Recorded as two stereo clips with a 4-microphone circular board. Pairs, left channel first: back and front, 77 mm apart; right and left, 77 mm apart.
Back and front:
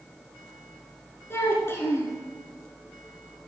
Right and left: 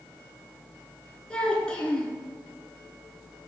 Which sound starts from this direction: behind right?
A child speaking, at 1.3 s.